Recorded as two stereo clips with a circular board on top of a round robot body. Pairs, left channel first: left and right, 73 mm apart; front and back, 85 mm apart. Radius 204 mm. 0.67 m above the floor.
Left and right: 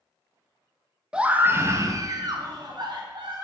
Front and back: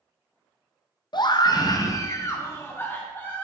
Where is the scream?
15° right, 0.8 m; by 3.4 s 70° right, 1.9 m.